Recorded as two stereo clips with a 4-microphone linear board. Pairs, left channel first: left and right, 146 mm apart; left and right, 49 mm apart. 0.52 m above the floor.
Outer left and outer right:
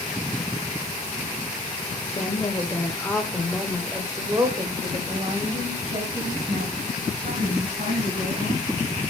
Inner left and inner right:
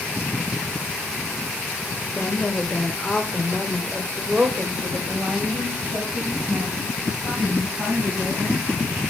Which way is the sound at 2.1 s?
40° left (ahead or behind).